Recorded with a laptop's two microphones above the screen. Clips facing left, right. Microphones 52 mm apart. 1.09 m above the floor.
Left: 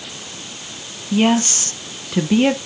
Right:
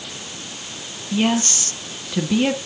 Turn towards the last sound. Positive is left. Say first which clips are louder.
# left 4 dB
turn(degrees=20)  # may be behind; listen again after turning